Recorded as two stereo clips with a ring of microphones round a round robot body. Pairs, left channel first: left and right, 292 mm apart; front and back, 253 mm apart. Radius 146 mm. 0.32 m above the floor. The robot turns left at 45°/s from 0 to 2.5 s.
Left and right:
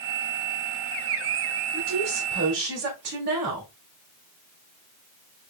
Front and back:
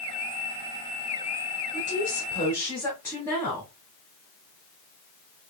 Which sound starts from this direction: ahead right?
A woman speaking, at 1.7 s.